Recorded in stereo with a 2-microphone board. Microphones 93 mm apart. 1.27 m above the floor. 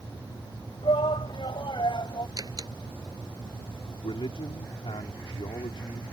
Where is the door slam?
40° right (ahead or behind).